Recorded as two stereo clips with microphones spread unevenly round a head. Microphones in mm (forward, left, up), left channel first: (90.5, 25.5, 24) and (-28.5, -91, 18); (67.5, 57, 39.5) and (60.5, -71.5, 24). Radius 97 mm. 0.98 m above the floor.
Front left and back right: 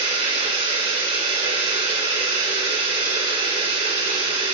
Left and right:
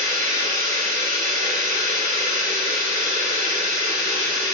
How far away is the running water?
About 6 m.